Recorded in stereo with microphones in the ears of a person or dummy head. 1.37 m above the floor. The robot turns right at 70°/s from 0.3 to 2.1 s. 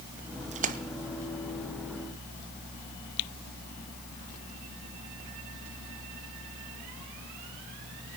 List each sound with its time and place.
0.5 s a splash: 35° right (ahead or behind), 0.6 m; by 0.8 s 45° right (ahead or behind), 0.6 m